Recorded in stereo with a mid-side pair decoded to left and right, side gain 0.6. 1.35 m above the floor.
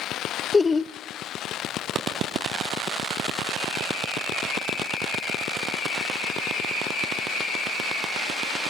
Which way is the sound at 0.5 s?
25° left.